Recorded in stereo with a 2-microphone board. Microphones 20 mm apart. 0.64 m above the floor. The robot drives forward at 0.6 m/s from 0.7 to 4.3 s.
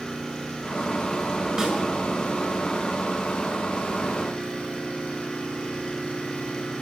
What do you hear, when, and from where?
0.0 s an engine running: 35° left (ahead or behind), 10 m; by 6.8 s 45° left (ahead or behind), 8.5 m
1.6 s a snare drum: 25° right (ahead or behind), 7.5 m